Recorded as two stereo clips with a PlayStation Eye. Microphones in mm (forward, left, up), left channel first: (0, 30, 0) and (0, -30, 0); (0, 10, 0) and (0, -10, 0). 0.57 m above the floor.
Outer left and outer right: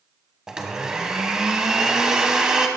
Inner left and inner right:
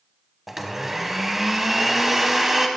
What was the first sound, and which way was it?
A blender, 10° right (ahead or behind).